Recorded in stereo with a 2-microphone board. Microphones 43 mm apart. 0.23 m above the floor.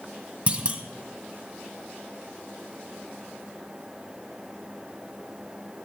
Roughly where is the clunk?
Right.